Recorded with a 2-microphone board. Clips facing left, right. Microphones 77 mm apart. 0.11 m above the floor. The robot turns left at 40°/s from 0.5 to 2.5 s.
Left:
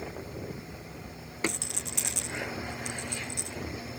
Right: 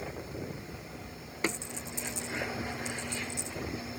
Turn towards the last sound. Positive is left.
turn(degrees=65)  # may be behind; listen again after turning